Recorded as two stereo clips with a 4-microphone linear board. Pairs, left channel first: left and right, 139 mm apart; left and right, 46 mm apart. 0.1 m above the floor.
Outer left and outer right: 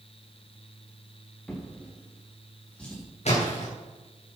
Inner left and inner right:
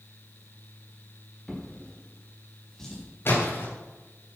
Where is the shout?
I don't hear a shout.